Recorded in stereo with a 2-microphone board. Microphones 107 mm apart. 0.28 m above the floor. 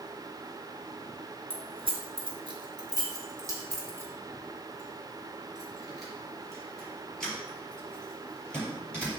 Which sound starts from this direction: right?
Keys jangling, at 1.5 s.